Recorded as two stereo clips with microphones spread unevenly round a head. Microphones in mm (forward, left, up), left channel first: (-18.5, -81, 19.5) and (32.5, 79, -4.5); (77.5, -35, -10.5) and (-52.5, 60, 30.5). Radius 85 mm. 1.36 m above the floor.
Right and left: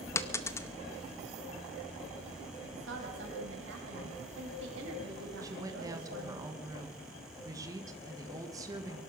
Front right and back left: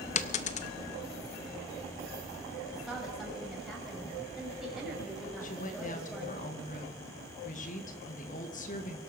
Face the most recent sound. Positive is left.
turn(degrees=0)